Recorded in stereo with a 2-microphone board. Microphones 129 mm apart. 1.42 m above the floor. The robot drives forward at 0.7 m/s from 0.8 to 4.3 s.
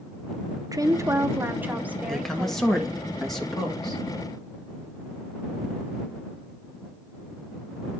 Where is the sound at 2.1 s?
5° left (ahead or behind), 1.4 m; by 4.0 s centre (ahead or behind), 2.5 m.